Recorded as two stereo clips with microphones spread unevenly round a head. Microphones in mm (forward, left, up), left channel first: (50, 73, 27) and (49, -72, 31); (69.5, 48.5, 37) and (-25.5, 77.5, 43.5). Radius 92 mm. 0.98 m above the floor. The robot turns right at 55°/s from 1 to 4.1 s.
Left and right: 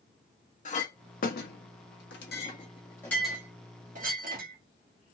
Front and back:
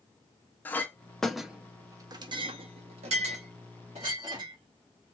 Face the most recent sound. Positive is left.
turn(degrees=-135)